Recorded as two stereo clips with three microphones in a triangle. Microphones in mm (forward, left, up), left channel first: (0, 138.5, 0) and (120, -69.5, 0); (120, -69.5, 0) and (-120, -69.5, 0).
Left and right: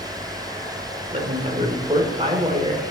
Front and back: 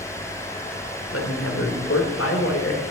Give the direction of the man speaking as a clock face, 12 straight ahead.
12 o'clock.